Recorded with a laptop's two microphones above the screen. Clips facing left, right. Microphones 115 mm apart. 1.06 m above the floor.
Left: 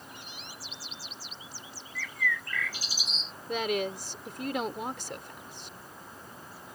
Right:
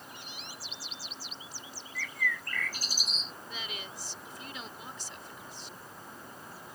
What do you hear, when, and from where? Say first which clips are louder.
1.9 s a bird: left 2 dB; 55° right (ahead or behind)
3.5 s a woman speaking: left 17 dB; 75° left (ahead or behind)